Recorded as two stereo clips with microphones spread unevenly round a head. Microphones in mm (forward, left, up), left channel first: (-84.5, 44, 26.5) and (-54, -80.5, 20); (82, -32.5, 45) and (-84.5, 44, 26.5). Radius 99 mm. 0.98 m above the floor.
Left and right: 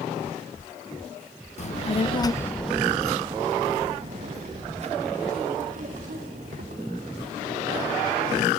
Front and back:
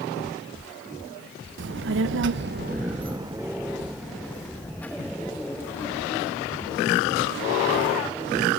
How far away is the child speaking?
About 0.7 m.